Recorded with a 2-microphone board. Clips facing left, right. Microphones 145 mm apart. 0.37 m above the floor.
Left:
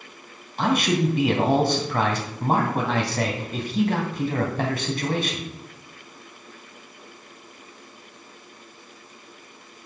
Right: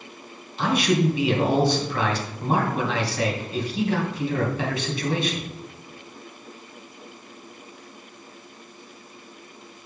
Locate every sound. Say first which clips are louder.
0.6 s a man speaking: even; 50° left (ahead or behind), 2.5 m